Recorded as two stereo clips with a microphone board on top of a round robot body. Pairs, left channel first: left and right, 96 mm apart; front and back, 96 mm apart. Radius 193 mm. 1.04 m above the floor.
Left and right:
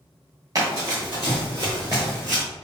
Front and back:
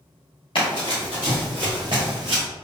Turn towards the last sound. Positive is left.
turn(degrees=175)